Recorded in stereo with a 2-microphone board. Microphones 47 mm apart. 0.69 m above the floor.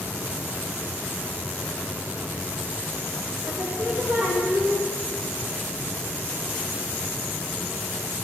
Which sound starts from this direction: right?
Singing, at 3.5 s.